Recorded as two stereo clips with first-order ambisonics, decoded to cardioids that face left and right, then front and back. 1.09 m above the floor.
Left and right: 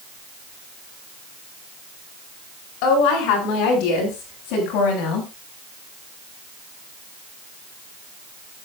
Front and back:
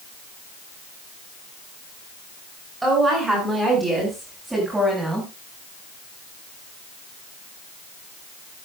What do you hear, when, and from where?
2.8 s a woman speaking: 105° left, 9.5 m; by 5.3 s 100° left, 7.5 m